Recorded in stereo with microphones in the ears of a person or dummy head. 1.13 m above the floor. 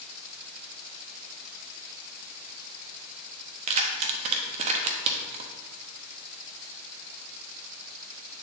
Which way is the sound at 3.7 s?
45° right (ahead or behind).